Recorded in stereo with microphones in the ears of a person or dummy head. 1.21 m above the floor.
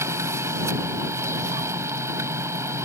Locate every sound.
0.0 s a machine running: 15° right (ahead or behind)